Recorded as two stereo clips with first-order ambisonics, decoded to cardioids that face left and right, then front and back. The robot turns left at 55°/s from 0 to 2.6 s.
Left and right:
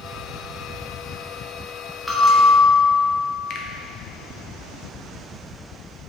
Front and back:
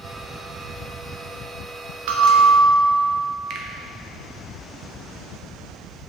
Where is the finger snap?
135° left, 0.8 m.